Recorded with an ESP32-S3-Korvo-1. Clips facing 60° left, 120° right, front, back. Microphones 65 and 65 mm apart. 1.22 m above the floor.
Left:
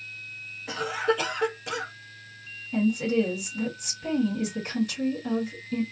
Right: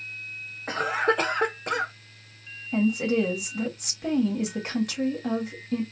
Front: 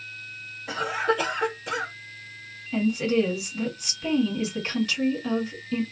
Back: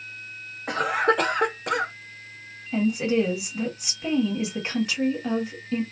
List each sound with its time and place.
0.7 s a cough: 160° right, 0.6 m
2.7 s a woman speaking: 115° right, 1.4 m